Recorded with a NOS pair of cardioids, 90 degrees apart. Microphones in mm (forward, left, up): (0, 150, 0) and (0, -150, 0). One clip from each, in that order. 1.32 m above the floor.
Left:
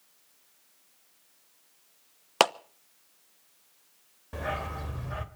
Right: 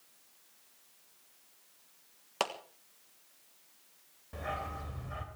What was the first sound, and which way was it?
A clap, 60° left.